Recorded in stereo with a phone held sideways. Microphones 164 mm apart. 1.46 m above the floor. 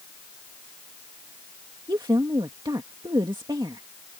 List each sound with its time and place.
1.9 s a woman speaking: 25° right (ahead or behind)